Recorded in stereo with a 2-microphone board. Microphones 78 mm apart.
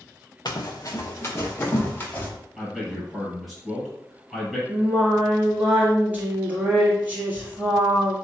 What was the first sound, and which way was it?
Running footsteps, 60° left (ahead or behind).